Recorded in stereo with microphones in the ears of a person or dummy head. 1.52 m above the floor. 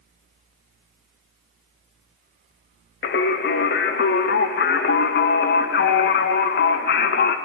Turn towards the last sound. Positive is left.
turn(degrees=50)  # may be behind; listen again after turning